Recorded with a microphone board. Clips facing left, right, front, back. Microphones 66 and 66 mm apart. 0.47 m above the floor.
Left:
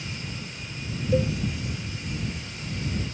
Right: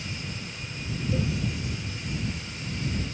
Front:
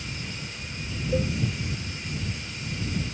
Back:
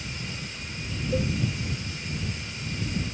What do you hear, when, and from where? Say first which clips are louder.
1.1 s a cowbell: left 7 dB, front 1 dB; 80° left